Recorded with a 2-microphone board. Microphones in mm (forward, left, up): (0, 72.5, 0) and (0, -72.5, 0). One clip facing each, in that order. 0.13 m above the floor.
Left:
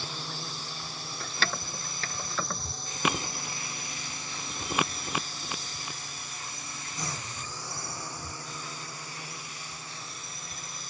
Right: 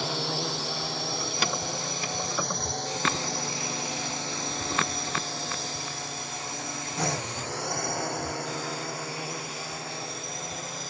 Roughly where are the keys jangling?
Centre.